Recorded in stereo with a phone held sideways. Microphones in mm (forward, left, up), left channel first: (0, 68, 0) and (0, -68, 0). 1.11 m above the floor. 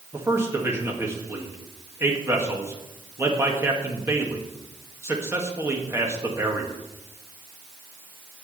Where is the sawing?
I don't hear sawing.